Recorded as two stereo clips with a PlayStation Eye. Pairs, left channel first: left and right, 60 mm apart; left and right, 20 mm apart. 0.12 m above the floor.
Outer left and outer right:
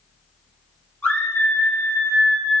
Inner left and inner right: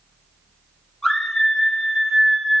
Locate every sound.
1.0 s a scream: 25° left (ahead or behind), 3.5 m; by 2.6 s 10° left (ahead or behind), 1.8 m